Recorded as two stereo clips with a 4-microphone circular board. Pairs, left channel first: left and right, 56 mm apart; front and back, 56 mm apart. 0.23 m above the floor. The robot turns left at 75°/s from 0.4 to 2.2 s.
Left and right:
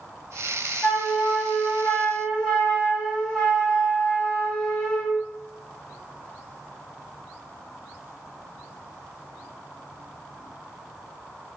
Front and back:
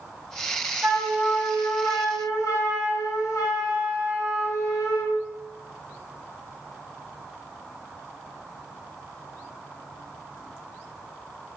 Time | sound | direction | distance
0.8 | a flute | 120° left | 1.0 m